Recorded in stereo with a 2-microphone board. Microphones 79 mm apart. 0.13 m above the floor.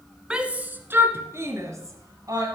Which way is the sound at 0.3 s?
10° right (ahead or behind).